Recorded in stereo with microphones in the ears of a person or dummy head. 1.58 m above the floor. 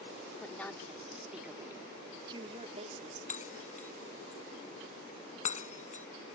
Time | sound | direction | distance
0.4 | a woman speaking | 10° left (ahead or behind) | ?
3.3 | breaking glass | 45° left (ahead or behind) | ?